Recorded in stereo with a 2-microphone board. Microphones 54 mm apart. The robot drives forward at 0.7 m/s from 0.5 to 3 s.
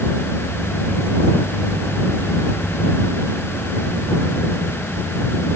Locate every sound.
Only background noise.